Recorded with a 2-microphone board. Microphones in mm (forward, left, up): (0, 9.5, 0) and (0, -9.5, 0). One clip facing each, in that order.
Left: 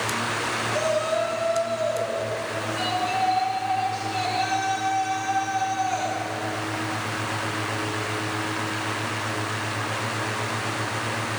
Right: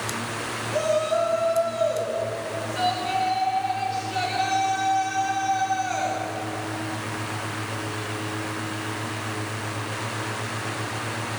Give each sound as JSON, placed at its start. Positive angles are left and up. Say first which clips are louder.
{"t": 0.7, "sound": "a shout", "louder": "right 3 dB", "side_deg": -60, "distance_m": 8.0}